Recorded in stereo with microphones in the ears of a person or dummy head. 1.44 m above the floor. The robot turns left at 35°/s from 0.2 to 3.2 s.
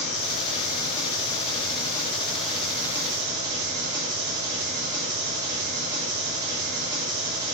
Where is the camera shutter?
No camera shutter in this recording.